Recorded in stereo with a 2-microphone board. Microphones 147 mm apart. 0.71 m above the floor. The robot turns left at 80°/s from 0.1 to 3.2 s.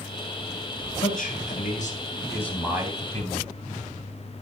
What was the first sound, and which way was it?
A man speaking, 130° left.